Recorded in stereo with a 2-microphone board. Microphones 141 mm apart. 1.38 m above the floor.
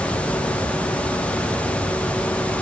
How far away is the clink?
No clink in this recording.